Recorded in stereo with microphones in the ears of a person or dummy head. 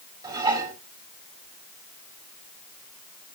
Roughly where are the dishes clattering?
Centre.